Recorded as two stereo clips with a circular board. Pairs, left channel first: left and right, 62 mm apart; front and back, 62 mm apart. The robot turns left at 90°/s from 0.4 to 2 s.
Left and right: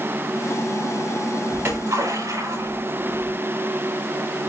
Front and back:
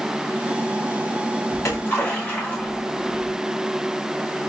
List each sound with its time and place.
1.5 s a splash: 30° right, 5.5 m; by 3.3 s 70° right, 5.5 m